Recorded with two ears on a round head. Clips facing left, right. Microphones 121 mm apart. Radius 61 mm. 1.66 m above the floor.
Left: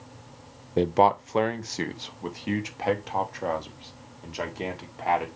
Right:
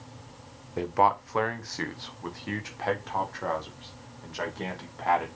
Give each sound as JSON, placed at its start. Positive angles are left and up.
{"t": 0.8, "sound": "a man speaking", "side_deg": 35, "distance_m": 0.6}